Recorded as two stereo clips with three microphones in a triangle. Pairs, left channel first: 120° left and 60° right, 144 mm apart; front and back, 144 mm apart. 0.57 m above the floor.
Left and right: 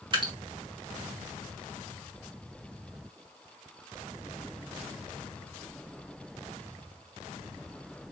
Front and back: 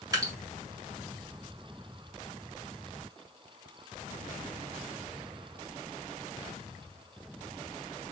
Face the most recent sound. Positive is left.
turn(degrees=-115)